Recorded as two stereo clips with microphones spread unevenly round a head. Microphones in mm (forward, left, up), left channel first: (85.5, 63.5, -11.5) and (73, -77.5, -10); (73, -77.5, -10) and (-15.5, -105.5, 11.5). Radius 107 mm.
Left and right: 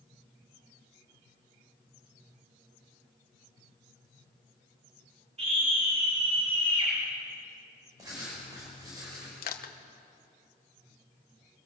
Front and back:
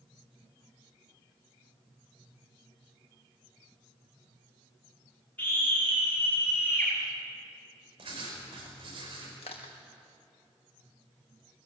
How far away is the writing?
About 4.5 m.